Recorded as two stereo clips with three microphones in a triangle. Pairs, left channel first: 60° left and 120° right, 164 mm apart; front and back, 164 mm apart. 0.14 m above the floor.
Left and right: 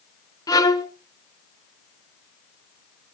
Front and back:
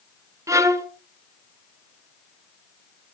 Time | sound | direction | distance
0.5 | a violin | 120° left | 1.0 m